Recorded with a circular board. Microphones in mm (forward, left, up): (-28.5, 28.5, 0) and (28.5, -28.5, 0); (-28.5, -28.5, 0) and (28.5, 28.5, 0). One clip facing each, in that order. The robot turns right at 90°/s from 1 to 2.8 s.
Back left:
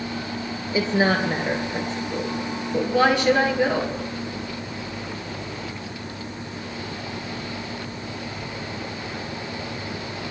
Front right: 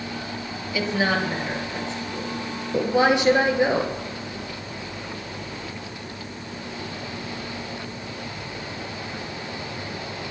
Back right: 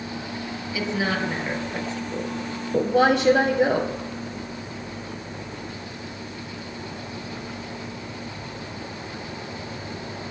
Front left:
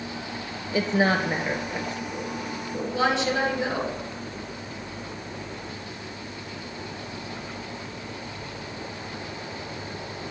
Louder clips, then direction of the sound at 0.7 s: Back left 3 dB, front left 4 dB; 85° left.